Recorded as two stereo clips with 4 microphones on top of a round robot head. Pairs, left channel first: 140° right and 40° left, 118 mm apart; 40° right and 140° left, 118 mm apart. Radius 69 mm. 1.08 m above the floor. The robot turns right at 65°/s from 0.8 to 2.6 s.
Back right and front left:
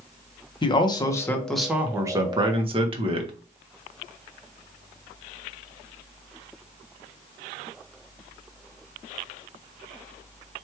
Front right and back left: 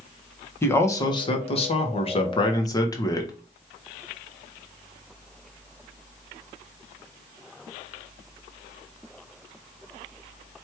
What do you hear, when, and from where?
0.6 s a man speaking: 105° right, 1.1 m; by 3.3 s 15° left, 1.1 m